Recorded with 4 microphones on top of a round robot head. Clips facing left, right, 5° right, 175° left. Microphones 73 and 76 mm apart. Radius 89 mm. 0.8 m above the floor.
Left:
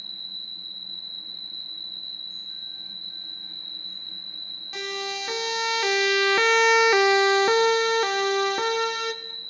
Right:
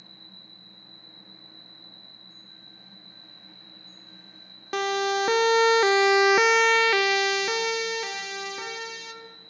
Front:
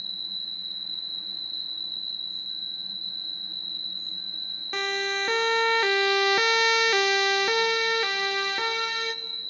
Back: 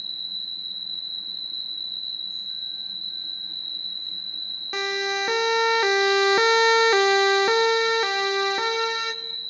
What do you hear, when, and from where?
0.0 s an insect: 65° left, 0.8 m
4.7 s a siren: 100° right, 2 m; by 9.1 s 105° left, 3 m